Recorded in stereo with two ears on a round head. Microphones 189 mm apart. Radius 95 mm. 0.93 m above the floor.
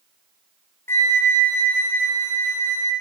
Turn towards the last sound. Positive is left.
turn(degrees=10)  # may be behind; listen again after turning